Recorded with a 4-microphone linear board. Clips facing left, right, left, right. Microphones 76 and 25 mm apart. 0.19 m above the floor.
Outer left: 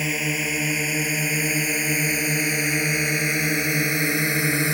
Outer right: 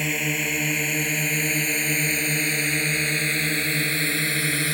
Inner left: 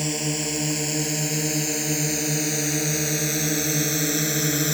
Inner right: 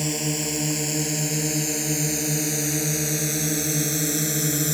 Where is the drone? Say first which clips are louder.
Outer left 1 dB, even; centre (ahead or behind); by 4.8 s 15° left (ahead or behind).